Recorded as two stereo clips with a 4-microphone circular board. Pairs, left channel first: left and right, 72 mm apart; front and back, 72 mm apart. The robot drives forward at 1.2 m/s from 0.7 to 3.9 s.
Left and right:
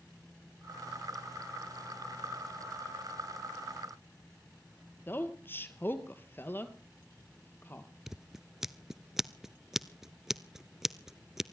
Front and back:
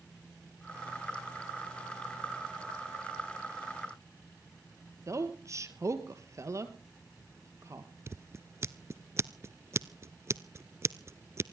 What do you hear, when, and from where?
5.1 s a woman speaking: 145° left, 2 m
8.1 s scissors: 170° right, 0.7 m